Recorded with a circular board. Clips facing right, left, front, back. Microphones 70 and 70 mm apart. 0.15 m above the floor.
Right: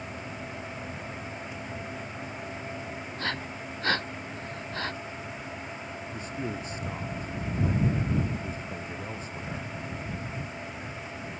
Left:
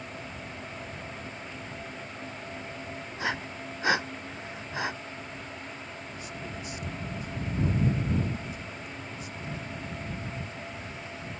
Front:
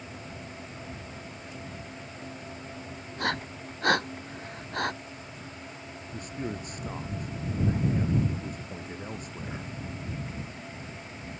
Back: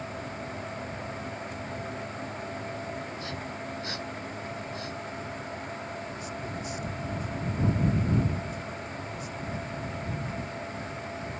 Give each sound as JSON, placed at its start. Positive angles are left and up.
{"t": 3.2, "sound": "breathing", "azimuth_deg": 15}
{"t": 6.1, "sound": "a man speaking", "azimuth_deg": -40}